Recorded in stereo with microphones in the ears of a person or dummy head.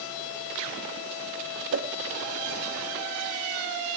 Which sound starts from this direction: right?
A whoosh, at 1.7 s.